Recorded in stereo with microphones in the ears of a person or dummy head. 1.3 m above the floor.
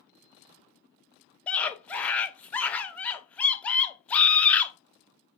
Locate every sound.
1.5 s a scream: 10° left (ahead or behind), 0.7 m